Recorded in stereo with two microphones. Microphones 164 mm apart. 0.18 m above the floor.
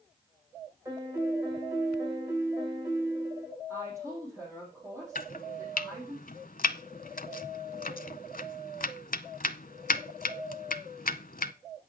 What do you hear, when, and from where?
0.8 s a piano: 20° right (ahead or behind), 4 m
3.7 s a woman speaking: 20° right (ahead or behind), 6 m
5.2 s chopping: 60° left (ahead or behind), 0.6 m